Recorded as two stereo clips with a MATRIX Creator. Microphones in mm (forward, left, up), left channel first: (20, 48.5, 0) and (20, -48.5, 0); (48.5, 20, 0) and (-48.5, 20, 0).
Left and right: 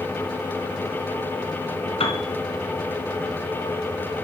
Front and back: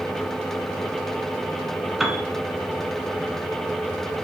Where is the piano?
95° left, 1.4 m.